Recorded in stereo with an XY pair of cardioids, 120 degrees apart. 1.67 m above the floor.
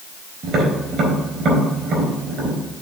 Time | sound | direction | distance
0.4 | tapping | 55° right | 3.5 m